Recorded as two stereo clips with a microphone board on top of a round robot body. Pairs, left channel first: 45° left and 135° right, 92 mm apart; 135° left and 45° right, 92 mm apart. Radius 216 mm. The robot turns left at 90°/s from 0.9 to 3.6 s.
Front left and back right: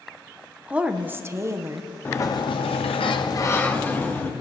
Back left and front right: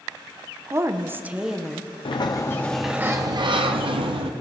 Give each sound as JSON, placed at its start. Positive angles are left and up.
{"t": 0.7, "sound": "a woman speaking", "azimuth_deg": -70, "distance_m": 1.0}
{"t": 2.0, "sound": "a sliding door", "azimuth_deg": 115, "distance_m": 0.7}